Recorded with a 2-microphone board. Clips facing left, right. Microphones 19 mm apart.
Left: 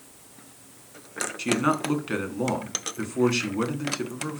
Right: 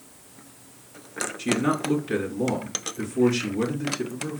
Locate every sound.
1.4 s a man speaking: 40° left (ahead or behind), 2 m